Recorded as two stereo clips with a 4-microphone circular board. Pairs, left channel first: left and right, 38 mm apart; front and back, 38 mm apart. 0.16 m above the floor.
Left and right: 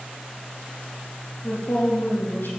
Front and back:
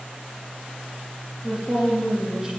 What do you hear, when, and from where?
1.4 s a woman speaking: 95° left, 4.5 m